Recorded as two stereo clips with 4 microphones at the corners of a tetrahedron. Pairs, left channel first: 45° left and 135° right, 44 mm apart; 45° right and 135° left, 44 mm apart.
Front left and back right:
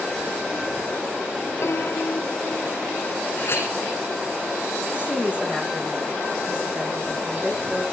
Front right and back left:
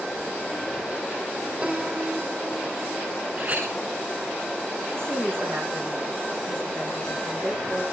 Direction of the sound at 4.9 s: 160° left.